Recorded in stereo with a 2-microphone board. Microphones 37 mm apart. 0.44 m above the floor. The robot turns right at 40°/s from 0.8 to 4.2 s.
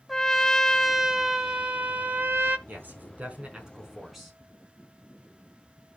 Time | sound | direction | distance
0.1 | a trumpet | straight behind | 1.2 m
2.7 | a man speaking | 65° right | 4 m